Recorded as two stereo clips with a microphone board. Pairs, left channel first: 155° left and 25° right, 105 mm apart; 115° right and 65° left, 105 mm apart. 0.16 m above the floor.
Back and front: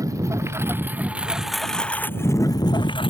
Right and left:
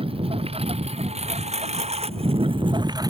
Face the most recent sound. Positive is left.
turn(degrees=120)